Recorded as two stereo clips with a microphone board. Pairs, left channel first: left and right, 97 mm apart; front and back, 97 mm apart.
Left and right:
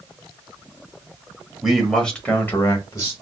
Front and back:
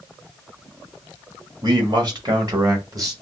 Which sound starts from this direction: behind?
A man speaking, at 1.6 s.